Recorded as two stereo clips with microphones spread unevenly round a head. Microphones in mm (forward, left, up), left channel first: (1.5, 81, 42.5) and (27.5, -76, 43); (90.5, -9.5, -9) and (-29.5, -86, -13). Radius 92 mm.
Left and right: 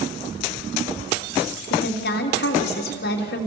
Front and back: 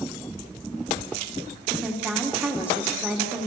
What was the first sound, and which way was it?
A woman speaking, 130° left.